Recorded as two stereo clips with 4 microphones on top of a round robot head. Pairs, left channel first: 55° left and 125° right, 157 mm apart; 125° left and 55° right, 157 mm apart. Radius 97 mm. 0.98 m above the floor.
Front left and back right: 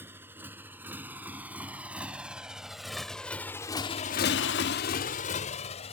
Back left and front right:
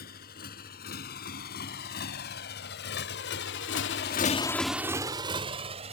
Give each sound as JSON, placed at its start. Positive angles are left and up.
{"t": 0.0, "sound": "a motorcycle", "azimuth_deg": 155}